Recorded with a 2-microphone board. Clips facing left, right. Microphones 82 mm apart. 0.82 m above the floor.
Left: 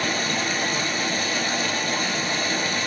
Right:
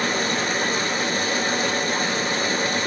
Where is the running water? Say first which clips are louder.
Right 2 dB; 45° right (ahead or behind), 1.2 m.